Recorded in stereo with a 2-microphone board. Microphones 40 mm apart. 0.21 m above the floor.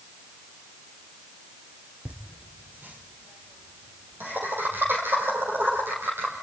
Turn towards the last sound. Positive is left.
turn(degrees=-60)  # may be behind; listen again after turning